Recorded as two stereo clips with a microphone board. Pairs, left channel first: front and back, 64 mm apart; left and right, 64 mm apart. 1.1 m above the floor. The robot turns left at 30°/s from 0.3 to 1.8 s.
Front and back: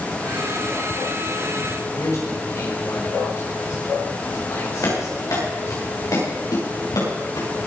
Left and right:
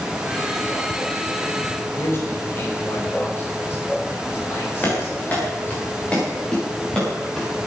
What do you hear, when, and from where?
1.9 s a man speaking: 40° left, 5.5 m
4.8 s running footsteps: 30° left, 6.5 m; by 7.5 s 10° left, 9.5 m